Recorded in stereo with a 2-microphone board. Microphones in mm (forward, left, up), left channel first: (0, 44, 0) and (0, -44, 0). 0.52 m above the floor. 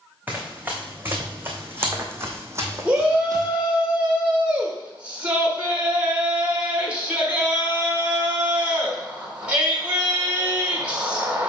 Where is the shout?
15° right (ahead or behind), 1.6 m.